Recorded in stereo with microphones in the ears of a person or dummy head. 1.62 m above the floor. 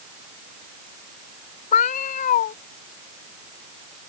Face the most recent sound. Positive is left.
turn(degrees=40)  # may be behind; listen again after turning